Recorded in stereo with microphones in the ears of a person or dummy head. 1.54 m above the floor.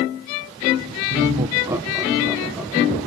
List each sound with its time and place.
1.1 s laughter: 35° right (ahead or behind), 0.7 m; by 3.0 s 10° left (ahead or behind), 2 m